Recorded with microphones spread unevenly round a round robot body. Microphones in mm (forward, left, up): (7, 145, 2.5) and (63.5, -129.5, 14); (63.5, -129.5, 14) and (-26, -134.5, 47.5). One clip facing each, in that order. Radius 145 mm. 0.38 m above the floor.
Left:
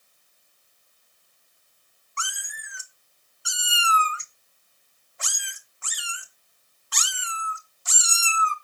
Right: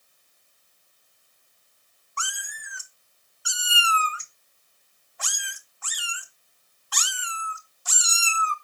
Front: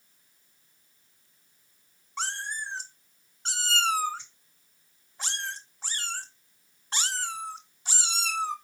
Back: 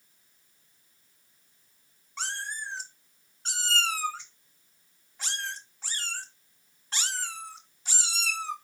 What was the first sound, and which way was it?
A cat meowing, 50° left.